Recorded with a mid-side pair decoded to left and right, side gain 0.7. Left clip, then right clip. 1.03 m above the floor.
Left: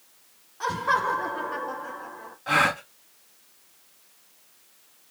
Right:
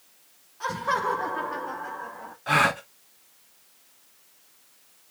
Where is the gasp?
10° right, 0.8 m.